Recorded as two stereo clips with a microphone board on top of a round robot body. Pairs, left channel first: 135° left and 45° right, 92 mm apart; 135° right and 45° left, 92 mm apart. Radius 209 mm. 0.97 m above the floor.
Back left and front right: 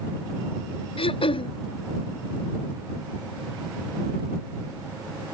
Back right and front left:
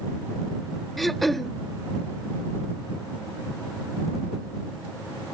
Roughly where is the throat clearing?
Behind left.